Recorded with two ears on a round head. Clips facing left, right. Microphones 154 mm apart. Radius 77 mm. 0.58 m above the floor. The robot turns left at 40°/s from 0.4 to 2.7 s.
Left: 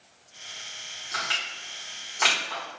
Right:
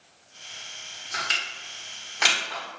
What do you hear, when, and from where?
1.1 s crushing: 35° right (ahead or behind), 1.3 m; by 2.6 s 5° right (ahead or behind), 1.3 m